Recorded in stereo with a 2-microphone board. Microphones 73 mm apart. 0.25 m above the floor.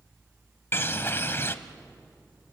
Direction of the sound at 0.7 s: 30° left (ahead or behind).